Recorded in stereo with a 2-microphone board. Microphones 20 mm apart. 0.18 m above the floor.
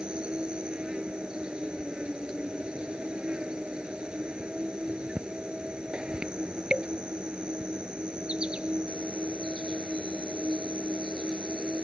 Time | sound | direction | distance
0.0 | an insect | 50° right (ahead or behind) | ?